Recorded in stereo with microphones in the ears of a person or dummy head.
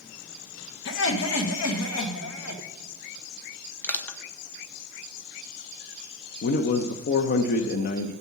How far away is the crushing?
About 1.0 m.